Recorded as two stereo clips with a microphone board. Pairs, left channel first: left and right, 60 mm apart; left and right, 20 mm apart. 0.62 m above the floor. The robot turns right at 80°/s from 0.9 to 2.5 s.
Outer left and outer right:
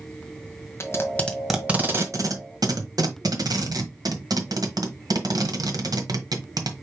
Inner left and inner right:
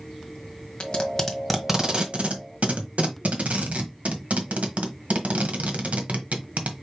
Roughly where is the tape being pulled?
Left.